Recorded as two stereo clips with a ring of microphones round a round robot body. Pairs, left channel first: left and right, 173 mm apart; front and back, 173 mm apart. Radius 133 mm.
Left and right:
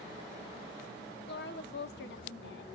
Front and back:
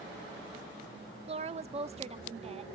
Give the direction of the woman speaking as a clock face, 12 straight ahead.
8 o'clock.